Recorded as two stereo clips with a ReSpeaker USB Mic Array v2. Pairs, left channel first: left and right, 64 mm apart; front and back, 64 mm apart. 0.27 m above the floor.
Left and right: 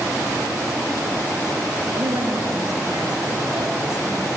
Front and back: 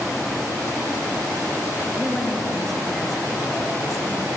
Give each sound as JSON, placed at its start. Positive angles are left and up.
{"t": 1.9, "sound": "a woman speaking", "azimuth_deg": -95, "distance_m": 4.5}